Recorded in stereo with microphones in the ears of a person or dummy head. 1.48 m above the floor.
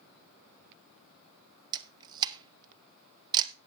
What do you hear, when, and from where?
1.7 s a camera shutter: 25° right (ahead or behind), 0.9 m